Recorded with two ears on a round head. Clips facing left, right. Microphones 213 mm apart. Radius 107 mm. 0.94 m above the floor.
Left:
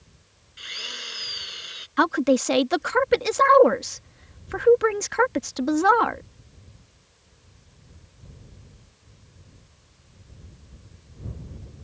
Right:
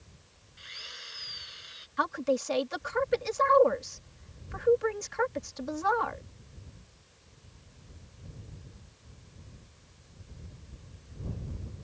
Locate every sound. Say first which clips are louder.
0.6 s a drill: left 12 dB; 75° left (ahead or behind)
2.0 s a woman speaking: left 9 dB; 75° left (ahead or behind)